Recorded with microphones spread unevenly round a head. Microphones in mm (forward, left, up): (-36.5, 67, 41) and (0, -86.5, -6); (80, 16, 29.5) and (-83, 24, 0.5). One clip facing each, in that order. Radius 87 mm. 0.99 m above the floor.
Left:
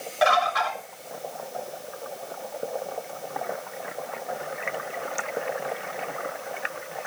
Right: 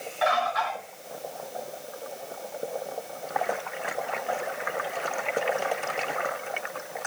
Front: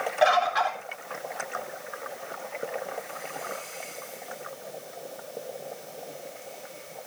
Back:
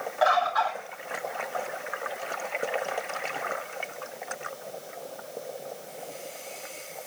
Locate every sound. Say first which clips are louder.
0.2 s a bird: left 3 dB, front 1 dB; 60° left, 3.5 m